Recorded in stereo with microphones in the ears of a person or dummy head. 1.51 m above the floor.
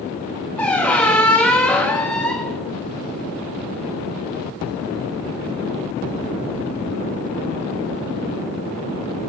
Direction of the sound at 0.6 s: 10° left (ahead or behind).